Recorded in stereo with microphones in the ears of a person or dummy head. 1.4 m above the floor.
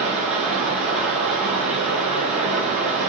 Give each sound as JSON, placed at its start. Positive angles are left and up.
{"t": 0.0, "sound": "running water", "side_deg": -5, "distance_m": 1.0}